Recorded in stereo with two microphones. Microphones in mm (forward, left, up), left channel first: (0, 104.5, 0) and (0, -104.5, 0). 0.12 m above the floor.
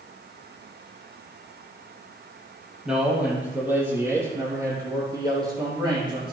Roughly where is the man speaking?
Centre.